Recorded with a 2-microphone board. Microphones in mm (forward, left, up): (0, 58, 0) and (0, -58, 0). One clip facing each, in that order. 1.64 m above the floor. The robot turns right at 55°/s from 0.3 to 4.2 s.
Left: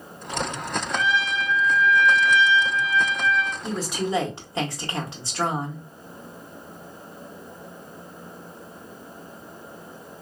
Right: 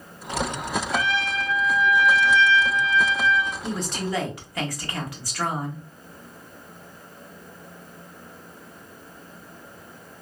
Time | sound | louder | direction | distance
0.9 | a trumpet | left 3 dB | 70° right | 0.7 m
3.6 | a woman speaking | left 2 dB | 5° right | 1.0 m